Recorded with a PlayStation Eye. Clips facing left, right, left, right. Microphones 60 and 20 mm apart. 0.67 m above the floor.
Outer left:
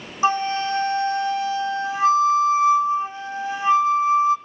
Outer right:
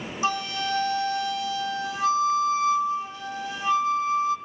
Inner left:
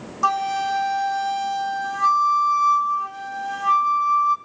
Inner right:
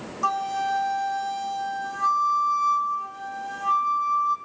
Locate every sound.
0.2 s a flute: 35° left (ahead or behind), 1.2 m